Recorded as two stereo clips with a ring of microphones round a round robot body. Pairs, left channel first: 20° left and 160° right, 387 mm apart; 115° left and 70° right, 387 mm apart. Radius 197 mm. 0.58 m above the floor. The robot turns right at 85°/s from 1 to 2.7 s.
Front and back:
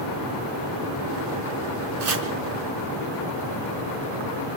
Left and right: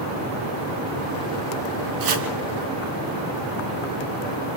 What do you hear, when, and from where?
2.0 s chopping: 110° right, 3.5 m; by 2.3 s 85° right, 3.5 m